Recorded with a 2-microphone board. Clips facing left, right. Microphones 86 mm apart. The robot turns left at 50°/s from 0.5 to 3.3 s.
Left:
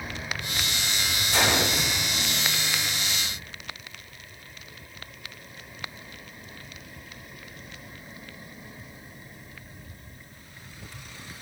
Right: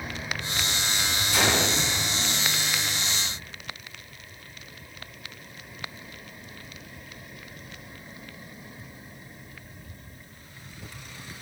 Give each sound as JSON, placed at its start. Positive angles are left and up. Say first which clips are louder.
{"t": 1.3, "sound": "a gunshot", "louder": "left 1 dB", "side_deg": 45, "distance_m": 2.0}